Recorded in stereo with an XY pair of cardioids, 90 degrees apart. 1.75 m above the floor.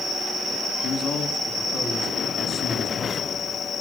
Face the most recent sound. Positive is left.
turn(degrees=65)